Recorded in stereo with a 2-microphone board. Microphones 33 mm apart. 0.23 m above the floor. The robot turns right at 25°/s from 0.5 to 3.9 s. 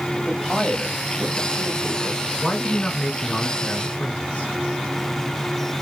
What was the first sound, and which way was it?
A man speaking, 10° left (ahead or behind).